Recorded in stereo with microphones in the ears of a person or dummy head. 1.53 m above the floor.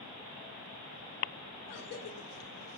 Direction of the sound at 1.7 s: 60° left (ahead or behind).